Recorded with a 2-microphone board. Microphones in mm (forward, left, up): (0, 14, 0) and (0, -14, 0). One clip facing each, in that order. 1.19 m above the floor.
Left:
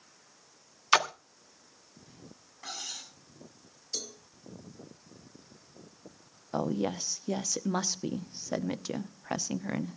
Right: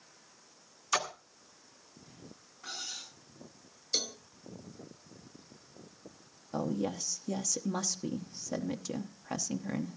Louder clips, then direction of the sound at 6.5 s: Left 3 dB; 30° left (ahead or behind).